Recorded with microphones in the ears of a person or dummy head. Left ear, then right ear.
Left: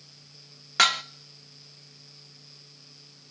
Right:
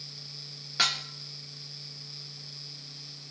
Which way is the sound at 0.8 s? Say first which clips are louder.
Left 5 dB; 40° left (ahead or behind).